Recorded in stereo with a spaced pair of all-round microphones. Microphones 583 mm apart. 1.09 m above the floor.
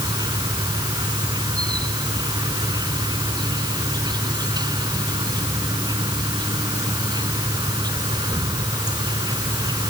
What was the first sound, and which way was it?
An insect, 5° right (ahead or behind).